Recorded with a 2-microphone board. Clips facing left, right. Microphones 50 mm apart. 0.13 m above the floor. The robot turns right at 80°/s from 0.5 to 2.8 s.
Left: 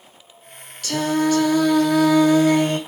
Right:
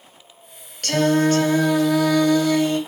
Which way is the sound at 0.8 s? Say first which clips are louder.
Right 2 dB; 90° right.